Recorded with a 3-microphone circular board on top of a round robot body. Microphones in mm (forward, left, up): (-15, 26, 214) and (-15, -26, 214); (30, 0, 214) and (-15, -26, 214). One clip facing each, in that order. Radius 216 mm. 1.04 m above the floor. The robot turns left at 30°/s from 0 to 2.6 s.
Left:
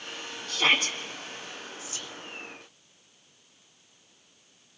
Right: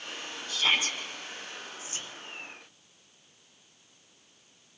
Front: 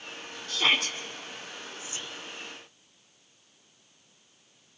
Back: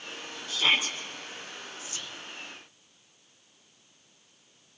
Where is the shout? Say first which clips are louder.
Left 3 dB, even; 70° left, 3 m; by 1.0 s 55° left, 3 m.